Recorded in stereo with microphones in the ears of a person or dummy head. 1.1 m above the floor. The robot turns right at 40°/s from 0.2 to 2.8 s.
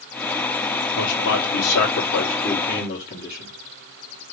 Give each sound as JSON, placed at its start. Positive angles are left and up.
{"t": 0.9, "sound": "a man speaking", "azimuth_deg": 70, "distance_m": 1.2}